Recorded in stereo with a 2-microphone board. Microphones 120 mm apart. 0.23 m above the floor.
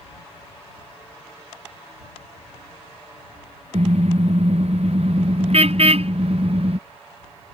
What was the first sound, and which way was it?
A car horn, 65° right (ahead or behind).